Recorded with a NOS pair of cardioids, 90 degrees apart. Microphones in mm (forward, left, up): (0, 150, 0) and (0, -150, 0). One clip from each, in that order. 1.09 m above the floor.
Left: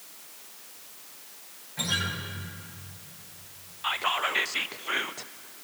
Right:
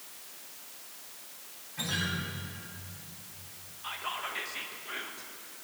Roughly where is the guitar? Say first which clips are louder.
Left 4 dB; ahead left.